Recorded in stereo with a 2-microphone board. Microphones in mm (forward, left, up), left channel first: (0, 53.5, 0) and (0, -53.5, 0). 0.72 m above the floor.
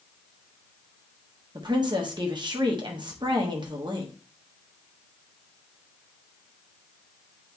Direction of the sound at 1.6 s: 45° right (ahead or behind).